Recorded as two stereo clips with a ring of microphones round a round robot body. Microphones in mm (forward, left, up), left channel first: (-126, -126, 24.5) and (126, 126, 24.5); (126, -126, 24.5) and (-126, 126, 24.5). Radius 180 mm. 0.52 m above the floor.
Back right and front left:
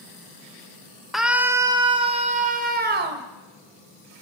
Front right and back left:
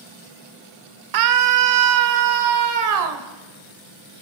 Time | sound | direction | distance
1.1 | a scream | 135° left | 2.0 m